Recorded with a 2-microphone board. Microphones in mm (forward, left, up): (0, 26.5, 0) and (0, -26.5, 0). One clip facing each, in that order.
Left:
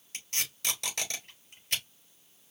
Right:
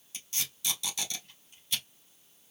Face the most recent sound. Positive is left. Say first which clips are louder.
# left 3 dB
turn(degrees=55)  # may be behind; listen again after turning